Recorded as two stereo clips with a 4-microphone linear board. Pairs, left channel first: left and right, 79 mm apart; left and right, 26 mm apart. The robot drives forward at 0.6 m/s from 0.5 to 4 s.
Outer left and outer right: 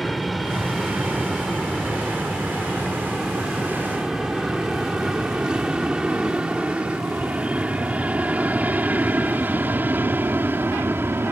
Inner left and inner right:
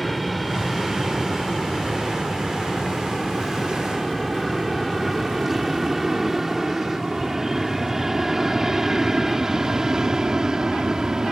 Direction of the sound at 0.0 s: Centre (ahead or behind).